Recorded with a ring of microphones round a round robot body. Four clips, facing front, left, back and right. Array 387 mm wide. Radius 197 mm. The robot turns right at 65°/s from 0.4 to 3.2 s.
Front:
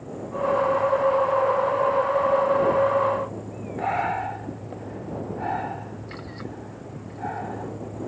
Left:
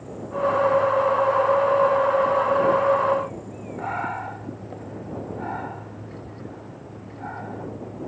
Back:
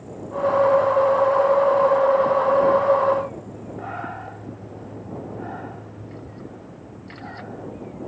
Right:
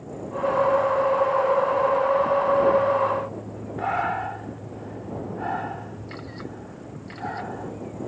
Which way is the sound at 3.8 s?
35° right.